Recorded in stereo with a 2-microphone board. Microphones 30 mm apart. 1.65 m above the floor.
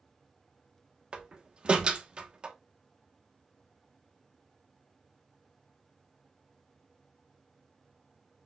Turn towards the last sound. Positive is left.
turn(degrees=-30)  # may be behind; listen again after turning